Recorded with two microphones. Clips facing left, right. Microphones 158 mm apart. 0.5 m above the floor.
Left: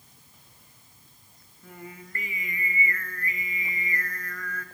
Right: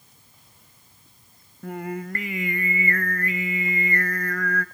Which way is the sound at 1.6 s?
75° right (ahead or behind).